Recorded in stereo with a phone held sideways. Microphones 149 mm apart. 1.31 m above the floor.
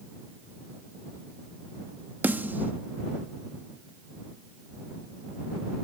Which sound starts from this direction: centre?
A snare drum, at 2.2 s.